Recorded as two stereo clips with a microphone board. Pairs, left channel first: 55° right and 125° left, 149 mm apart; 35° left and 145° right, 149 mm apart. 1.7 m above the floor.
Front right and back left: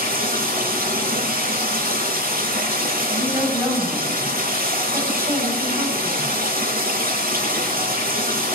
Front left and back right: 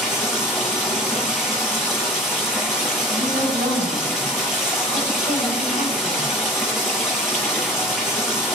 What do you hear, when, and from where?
0.0 s running water: 125° left, 8.5 m
3.1 s a woman speaking: 165° right, 9.5 m